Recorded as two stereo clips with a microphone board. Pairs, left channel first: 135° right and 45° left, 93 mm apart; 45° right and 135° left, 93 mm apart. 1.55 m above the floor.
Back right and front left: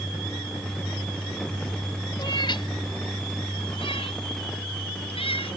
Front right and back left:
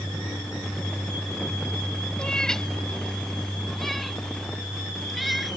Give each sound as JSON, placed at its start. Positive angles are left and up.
{"t": 2.2, "sound": "a cat meowing", "azimuth_deg": -125}